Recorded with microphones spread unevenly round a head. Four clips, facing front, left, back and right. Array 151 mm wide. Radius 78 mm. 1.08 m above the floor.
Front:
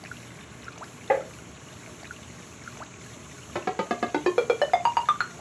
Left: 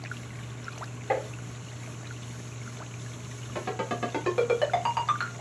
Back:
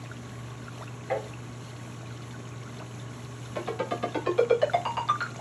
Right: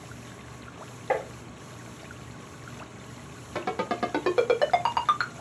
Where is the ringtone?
20° right, 1.2 m.